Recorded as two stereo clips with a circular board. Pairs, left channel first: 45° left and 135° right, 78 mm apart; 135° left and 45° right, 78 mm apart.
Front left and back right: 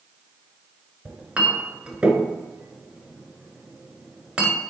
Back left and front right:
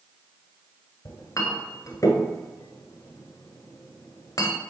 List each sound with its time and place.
1.1 s a clink: 150° left, 1.1 m